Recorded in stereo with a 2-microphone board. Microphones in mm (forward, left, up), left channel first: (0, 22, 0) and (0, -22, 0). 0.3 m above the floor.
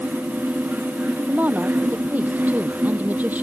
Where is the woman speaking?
40° right (ahead or behind).